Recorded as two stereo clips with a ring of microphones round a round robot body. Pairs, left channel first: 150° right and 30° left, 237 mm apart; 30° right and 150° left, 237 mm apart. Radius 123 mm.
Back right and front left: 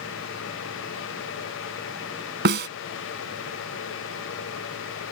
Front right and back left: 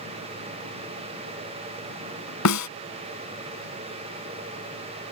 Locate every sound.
2.5 s a snare drum: 15° right